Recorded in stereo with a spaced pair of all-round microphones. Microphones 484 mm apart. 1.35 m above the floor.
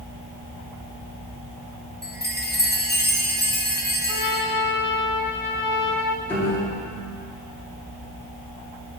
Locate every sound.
2.0 s a chime: 20° left (ahead or behind), 1.0 m
4.1 s a trumpet: 40° left (ahead or behind), 0.6 m
6.3 s a piano: 5° left (ahead or behind), 2.5 m